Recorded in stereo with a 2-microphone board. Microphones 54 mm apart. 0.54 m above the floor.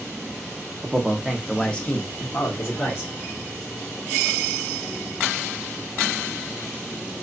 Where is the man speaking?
25° right (ahead or behind), 0.7 m; by 3.1 s 55° left (ahead or behind), 1.1 m.